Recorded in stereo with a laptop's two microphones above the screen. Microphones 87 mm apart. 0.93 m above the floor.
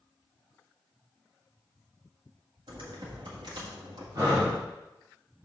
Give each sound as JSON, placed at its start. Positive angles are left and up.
{"t": 2.7, "sound": "typing on a keyboard", "side_deg": -65, "distance_m": 1.5}
{"t": 4.2, "sound": "breathing", "side_deg": -50, "distance_m": 2.0}